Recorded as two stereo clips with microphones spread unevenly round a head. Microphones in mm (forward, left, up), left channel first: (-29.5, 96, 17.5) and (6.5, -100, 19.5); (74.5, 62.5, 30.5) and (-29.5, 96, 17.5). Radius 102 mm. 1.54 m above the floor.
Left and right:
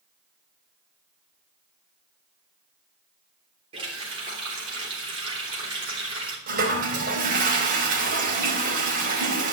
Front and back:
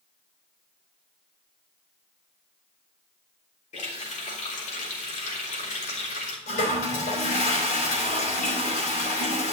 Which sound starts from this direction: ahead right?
A toilet flushing, at 6.5 s.